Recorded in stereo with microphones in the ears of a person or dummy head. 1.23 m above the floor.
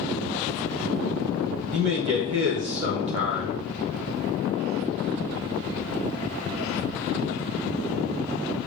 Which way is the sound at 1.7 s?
55° right (ahead or behind).